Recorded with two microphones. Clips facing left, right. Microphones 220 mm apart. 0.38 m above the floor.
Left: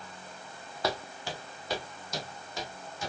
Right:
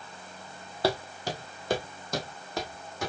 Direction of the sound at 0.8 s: 30° right (ahead or behind).